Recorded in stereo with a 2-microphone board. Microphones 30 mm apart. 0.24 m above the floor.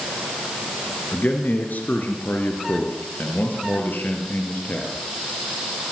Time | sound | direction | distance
1.1 | a man speaking | 65° left (ahead or behind) | 4 m